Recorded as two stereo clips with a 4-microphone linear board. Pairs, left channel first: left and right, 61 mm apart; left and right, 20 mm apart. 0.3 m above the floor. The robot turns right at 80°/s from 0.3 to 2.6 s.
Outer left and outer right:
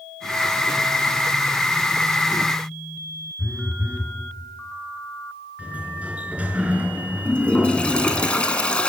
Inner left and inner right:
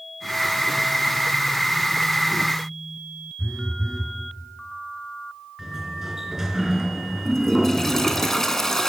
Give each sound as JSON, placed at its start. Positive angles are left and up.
{"t": 3.4, "sound": "a phone buzzing", "side_deg": 25, "distance_m": 4.5}
{"t": 5.6, "sound": "a sliding door", "side_deg": -25, "distance_m": 3.0}
{"t": 7.2, "sound": "a toilet flushing", "side_deg": 15, "distance_m": 3.0}